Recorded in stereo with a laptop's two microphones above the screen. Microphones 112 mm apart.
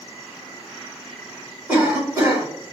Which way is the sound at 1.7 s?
15° right (ahead or behind).